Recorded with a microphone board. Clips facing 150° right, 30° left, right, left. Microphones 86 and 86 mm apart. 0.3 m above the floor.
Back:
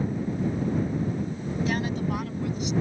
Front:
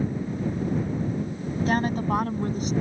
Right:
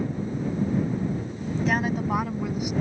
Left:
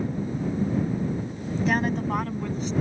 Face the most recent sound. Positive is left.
turn(degrees=-15)